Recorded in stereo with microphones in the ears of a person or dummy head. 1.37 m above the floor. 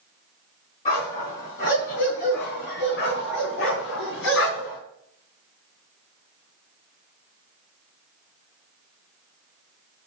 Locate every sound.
0.8 s a dog barking: 35° left (ahead or behind), 3.5 m; by 4.8 s 70° left (ahead or behind), 3.5 m